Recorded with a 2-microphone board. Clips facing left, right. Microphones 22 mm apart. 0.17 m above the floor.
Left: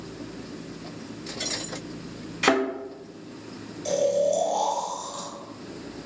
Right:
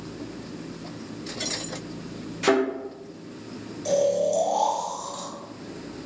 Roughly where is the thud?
Left.